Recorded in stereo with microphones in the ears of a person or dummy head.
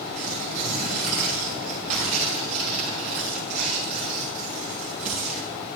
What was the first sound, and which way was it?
Tearing paper, 50° right (ahead or behind).